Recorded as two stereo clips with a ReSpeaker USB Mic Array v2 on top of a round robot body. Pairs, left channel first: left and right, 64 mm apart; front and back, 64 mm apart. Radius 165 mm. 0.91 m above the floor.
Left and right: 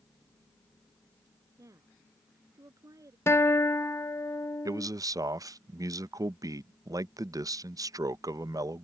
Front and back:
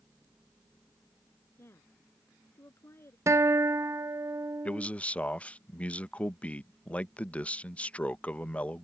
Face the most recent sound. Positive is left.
turn(degrees=-70)